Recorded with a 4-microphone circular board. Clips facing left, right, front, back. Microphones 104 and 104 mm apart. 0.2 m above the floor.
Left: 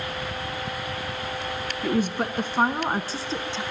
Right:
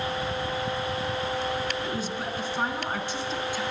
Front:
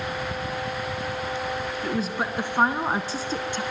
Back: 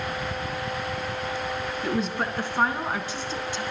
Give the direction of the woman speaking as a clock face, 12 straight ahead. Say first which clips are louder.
Left 6 dB, back 1 dB; 9 o'clock.